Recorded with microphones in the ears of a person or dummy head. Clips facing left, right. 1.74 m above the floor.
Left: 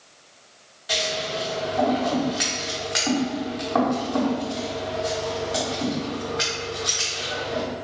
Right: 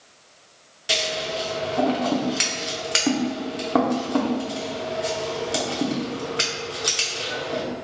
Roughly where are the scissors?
Right.